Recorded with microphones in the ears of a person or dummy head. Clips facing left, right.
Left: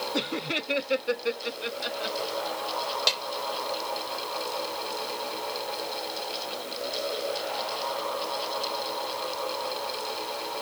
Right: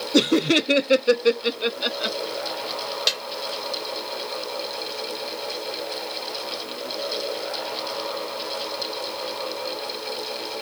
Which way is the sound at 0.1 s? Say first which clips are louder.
Right 16 dB; 60° right (ahead or behind).